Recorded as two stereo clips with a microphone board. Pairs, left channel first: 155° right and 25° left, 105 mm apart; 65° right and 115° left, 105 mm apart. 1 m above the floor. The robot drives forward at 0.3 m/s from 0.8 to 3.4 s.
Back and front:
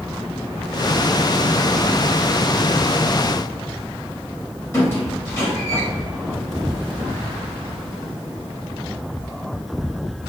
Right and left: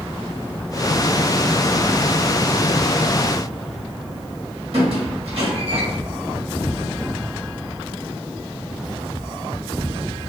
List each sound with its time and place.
4.7 s a squeak: 140° left, 1.2 m